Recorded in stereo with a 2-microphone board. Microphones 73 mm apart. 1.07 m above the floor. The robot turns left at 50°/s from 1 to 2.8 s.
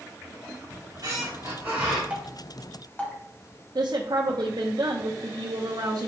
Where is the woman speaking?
55° right (ahead or behind), 0.8 m.